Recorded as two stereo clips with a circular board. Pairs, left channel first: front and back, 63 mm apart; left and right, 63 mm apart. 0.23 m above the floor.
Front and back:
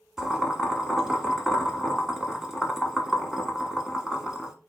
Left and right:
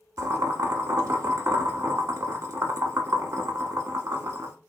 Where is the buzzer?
No buzzer in this recording.